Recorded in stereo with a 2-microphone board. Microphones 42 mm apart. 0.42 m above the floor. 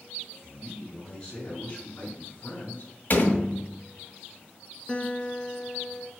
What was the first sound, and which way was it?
A man speaking, 10° left (ahead or behind).